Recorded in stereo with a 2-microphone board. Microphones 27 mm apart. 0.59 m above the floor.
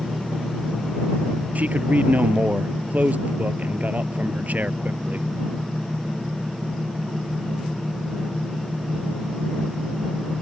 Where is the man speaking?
70° right (ahead or behind).